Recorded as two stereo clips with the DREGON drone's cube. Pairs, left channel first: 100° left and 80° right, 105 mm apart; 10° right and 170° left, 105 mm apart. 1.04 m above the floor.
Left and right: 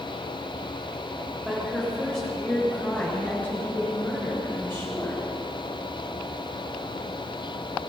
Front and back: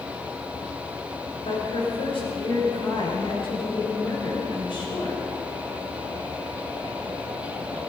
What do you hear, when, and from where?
1.4 s a woman speaking: 10° left, 5.5 m; by 5.2 s 35° left, 7.5 m